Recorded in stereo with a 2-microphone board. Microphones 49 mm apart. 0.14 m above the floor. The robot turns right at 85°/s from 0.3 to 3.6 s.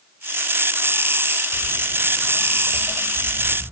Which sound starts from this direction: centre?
Footsteps, at 1.5 s.